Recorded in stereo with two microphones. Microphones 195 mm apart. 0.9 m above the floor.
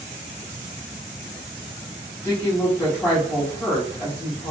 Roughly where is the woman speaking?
Centre.